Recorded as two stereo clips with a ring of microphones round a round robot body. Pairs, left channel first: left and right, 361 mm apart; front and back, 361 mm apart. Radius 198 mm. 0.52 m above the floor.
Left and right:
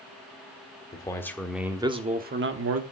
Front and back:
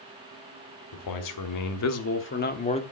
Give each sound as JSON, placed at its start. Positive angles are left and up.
{"t": 0.9, "sound": "a man speaking", "azimuth_deg": 15, "distance_m": 1.6}